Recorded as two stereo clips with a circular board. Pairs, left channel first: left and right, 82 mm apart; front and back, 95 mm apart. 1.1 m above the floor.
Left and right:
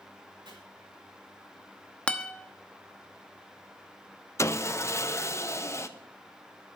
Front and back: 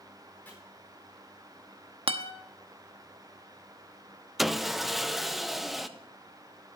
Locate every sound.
0.5 s chopping: 70° right, 4 m
2.1 s a guitar: 165° left, 0.9 m
4.4 s sawing: 95° left, 0.6 m